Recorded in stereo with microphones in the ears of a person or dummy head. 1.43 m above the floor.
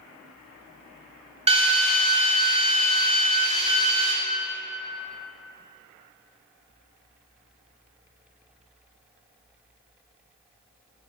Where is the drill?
30° right (ahead or behind), 1.2 m.